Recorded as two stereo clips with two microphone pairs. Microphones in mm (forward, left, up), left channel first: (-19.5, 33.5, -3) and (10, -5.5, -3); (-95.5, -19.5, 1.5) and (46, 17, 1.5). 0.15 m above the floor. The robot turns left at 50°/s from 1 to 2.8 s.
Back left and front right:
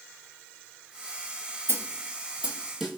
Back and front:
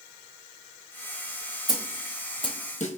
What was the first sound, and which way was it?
A snare drum, 80° right.